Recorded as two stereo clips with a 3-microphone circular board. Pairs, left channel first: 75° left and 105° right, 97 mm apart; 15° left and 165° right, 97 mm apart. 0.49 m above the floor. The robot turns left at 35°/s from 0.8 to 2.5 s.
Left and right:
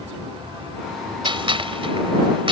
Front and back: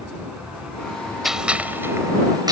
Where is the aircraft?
85° right; by 2.5 s 145° right.